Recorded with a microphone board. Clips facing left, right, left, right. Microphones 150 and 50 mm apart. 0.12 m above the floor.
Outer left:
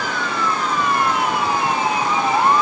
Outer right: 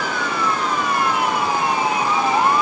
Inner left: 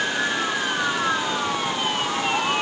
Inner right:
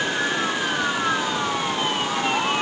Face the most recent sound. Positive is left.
No sound to turn to.